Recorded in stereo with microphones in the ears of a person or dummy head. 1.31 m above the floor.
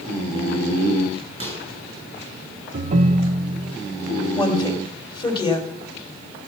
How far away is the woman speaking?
About 2.5 m.